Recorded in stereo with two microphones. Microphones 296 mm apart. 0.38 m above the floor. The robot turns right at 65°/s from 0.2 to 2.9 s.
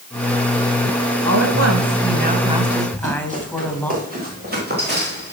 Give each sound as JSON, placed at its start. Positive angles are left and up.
{"t": 1.2, "sound": "a woman speaking", "azimuth_deg": -100, "distance_m": 3.0}
{"t": 2.9, "sound": "running footsteps", "side_deg": -25, "distance_m": 9.5}